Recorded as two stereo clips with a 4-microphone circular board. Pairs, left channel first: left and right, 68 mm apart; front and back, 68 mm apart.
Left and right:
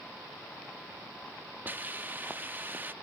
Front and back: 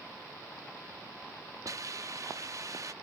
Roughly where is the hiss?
Behind right.